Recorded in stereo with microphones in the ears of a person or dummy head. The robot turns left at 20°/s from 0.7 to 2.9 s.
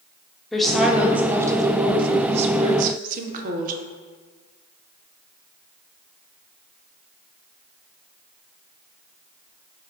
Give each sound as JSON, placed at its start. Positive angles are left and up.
{"t": 0.5, "sound": "a woman speaking", "azimuth_deg": 0, "distance_m": 0.5}